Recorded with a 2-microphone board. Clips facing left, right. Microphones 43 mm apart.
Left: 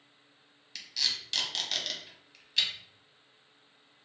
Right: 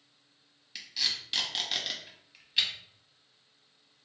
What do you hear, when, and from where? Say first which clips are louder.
0.8 s tape being pulled: even; 10° right (ahead or behind), 0.7 m